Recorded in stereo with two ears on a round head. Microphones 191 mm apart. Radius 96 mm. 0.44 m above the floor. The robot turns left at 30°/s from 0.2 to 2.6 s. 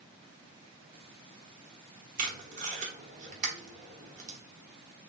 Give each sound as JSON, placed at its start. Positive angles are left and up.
{"t": 2.2, "sound": "tape being pulled", "side_deg": -40, "distance_m": 1.0}